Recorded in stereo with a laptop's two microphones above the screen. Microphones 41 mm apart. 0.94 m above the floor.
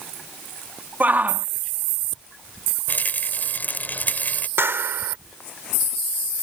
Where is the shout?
45° right (ahead or behind).